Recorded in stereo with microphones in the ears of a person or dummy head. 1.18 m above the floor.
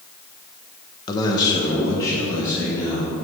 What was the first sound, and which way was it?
A man speaking, 25° left (ahead or behind).